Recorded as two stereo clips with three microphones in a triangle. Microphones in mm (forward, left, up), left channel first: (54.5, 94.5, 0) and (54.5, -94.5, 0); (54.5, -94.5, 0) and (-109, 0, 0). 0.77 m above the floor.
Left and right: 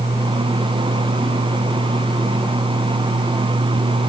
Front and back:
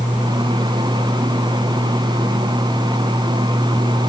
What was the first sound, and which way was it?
Only background noise.